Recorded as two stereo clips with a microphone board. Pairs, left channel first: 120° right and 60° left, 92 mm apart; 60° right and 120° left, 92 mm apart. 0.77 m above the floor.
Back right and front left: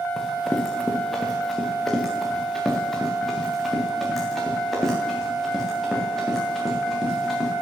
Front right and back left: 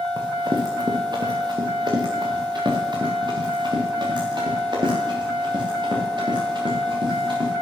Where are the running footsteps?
155° left, 3 m.